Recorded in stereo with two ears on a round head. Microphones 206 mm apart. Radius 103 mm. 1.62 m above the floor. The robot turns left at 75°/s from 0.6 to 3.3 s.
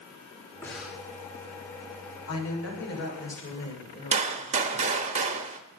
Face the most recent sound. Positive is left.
turn(degrees=-30)  # may be behind; listen again after turning